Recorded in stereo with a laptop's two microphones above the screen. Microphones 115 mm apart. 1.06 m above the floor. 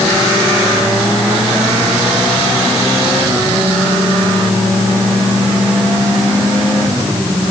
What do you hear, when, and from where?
Only background noise.